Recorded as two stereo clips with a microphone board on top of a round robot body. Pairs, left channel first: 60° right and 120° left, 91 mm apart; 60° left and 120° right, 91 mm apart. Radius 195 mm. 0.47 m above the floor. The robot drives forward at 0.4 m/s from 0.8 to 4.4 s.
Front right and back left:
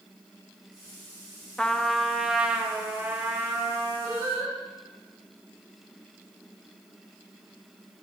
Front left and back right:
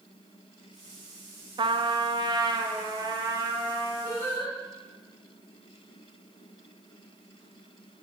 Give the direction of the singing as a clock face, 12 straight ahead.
6 o'clock.